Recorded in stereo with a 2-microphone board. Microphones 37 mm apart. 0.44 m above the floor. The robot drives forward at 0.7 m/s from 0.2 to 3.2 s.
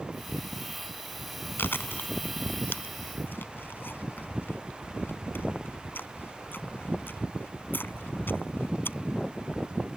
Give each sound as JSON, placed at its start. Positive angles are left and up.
{"t": 1.6, "sound": "chewing", "side_deg": 75}